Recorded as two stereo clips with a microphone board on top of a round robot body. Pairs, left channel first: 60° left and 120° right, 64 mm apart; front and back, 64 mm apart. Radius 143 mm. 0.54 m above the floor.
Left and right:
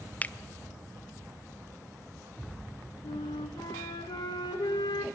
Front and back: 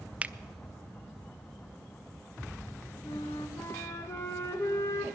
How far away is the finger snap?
About 0.6 m.